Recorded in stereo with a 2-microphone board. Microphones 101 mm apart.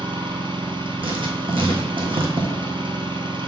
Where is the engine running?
60° right (ahead or behind), 0.8 m.